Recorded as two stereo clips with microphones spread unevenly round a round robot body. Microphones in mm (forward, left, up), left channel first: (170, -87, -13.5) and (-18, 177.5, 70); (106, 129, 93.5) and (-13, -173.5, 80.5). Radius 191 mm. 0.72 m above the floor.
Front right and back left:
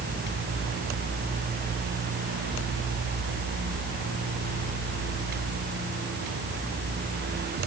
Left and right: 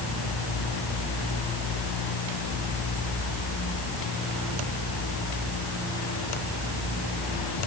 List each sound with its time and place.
Only background noise.